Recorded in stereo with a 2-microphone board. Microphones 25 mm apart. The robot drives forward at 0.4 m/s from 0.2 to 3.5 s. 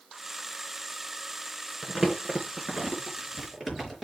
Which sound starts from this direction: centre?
Crumpling, at 1.8 s.